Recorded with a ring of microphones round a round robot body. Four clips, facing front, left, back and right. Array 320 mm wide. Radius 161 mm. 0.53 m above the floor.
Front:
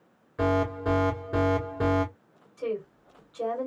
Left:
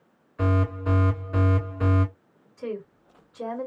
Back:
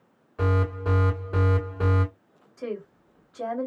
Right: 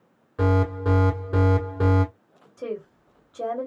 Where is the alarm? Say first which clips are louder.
Right 3 dB, front 2 dB; 90° right, 2.5 m.